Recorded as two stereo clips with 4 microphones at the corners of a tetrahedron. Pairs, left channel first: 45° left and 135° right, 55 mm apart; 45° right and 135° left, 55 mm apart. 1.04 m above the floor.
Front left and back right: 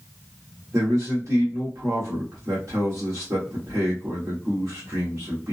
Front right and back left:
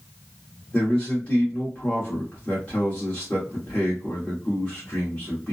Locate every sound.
0.7 s a man speaking: 110° right, 1.7 m